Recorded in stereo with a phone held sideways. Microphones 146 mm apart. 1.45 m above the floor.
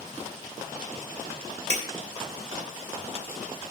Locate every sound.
1.7 s breaking glass: 50° right (ahead or behind), 3 m